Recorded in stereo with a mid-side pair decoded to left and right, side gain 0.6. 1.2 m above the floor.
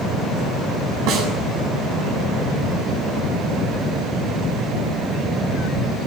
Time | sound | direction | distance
1.1 | a snare drum | 70° right | 8 m